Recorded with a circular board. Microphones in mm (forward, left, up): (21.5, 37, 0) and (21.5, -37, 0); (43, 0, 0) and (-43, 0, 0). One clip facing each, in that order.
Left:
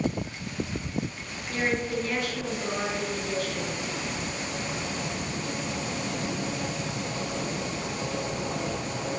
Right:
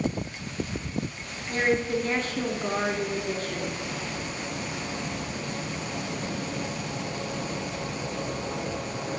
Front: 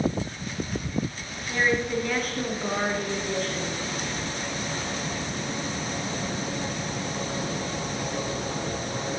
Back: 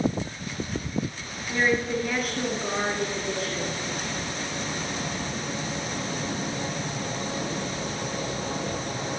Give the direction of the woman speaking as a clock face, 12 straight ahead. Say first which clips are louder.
Right 3 dB, even; 3 o'clock.